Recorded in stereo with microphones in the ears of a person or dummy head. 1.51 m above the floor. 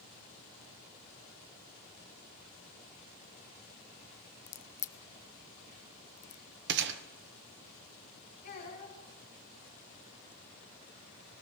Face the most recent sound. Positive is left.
turn(degrees=55)  # may be behind; listen again after turning